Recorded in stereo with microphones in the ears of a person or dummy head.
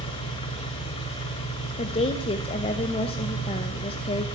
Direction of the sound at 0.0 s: 25° left (ahead or behind).